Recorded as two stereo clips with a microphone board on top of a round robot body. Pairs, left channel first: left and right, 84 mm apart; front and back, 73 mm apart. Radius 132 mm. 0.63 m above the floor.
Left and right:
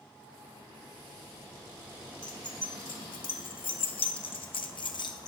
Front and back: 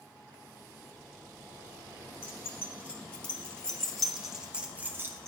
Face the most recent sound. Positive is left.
turn(degrees=130)